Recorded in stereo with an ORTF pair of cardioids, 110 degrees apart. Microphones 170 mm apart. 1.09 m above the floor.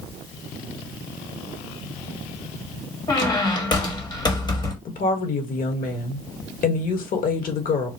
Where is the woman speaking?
55° left, 1.3 m.